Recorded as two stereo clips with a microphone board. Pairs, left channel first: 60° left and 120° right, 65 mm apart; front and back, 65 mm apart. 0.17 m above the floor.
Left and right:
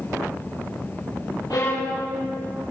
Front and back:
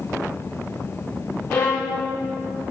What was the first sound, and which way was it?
A violin, 65° left.